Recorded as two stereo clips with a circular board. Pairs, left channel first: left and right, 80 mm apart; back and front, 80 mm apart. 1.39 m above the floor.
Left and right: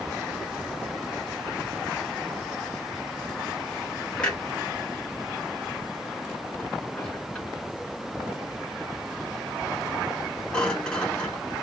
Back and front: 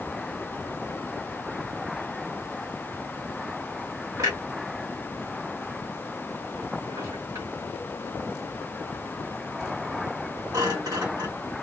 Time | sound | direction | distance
4.2 | a clunk | 15° left | 1.4 m